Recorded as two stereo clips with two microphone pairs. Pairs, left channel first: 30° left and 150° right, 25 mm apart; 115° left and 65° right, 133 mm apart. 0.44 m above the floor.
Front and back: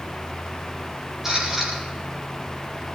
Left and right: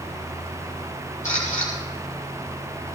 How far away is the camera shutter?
About 7.5 m.